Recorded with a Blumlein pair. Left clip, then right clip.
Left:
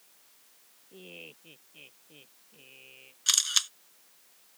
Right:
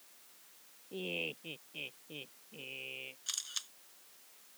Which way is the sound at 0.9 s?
25° right.